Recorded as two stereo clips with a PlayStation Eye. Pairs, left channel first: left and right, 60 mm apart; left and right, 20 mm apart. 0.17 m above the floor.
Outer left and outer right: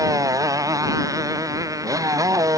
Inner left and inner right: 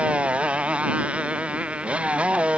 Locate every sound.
0.0 s a motorcycle: 65° right (ahead or behind)